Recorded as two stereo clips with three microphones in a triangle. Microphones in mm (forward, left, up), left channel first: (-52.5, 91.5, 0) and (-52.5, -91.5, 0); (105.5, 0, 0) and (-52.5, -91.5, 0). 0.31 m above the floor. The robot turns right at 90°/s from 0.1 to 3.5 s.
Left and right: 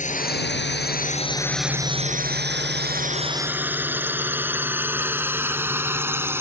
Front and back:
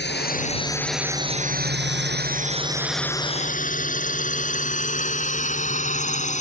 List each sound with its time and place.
0.0 s a drone: 45° left; by 6.4 s 15° right